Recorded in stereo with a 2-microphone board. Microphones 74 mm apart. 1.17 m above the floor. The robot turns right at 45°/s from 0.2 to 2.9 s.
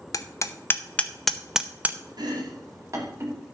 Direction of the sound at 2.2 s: 75° right (ahead or behind).